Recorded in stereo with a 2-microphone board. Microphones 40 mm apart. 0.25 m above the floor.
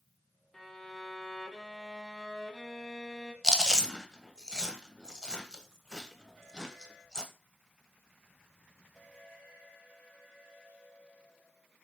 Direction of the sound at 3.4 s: 15° left (ahead or behind).